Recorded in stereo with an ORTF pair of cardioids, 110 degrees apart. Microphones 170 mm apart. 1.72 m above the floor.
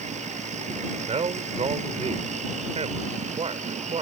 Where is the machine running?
40° right.